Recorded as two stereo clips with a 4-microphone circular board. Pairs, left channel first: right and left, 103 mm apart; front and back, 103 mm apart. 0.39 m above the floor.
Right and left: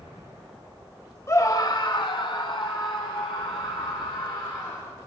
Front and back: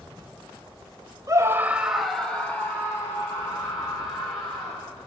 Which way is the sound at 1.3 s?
140° right.